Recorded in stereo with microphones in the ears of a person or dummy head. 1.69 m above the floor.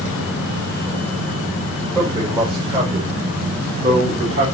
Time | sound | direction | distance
1.9 | a man speaking | 25° right (ahead or behind) | 5 m